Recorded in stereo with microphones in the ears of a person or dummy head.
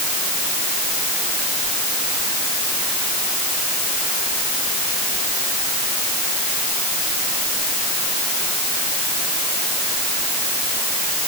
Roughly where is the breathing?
No breathing in this recording.